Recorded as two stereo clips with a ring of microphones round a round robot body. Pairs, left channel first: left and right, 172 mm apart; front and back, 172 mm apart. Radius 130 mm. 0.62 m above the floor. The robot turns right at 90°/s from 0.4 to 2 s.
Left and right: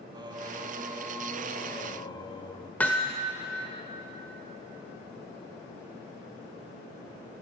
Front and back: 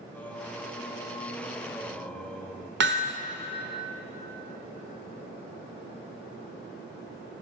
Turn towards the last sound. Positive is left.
turn(degrees=175)